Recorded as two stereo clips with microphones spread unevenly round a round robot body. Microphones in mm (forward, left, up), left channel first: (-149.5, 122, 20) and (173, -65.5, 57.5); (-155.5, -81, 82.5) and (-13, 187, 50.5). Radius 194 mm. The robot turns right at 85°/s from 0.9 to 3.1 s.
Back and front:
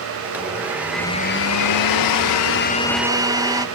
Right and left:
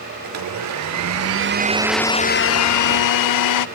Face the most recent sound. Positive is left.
turn(degrees=-115)